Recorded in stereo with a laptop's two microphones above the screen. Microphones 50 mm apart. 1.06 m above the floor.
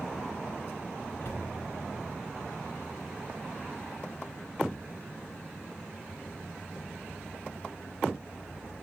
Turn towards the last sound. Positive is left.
turn(degrees=55)  # may be behind; listen again after turning